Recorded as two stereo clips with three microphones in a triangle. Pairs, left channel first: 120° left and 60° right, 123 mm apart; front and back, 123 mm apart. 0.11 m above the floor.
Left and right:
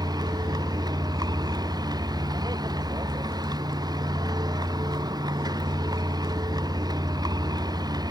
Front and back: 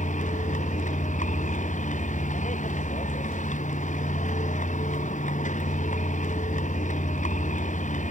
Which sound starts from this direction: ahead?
A vehicle, at 0.0 s.